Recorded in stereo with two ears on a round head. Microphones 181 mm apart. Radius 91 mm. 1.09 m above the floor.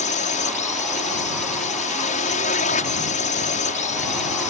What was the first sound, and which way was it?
A drone, 40° left (ahead or behind).